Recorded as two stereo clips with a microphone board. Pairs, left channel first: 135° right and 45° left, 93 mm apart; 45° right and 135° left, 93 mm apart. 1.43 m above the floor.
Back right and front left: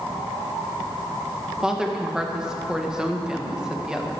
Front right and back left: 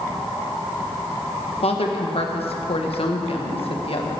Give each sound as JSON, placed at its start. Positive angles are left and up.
{"t": 1.6, "sound": "a woman speaking", "azimuth_deg": -40, "distance_m": 1.7}